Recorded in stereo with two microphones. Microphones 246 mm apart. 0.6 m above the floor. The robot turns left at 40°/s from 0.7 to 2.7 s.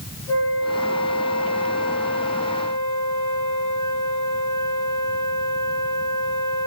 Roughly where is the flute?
Right.